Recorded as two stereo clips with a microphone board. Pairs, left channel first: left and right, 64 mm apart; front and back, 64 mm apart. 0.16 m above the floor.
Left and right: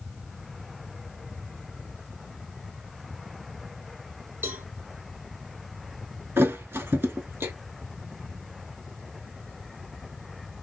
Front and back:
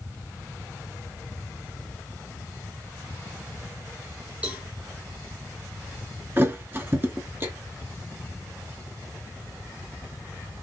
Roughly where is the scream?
No scream in this recording.